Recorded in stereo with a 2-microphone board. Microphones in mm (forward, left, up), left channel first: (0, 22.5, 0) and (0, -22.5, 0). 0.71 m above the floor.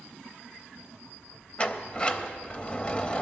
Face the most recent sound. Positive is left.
turn(degrees=25)  # may be behind; listen again after turning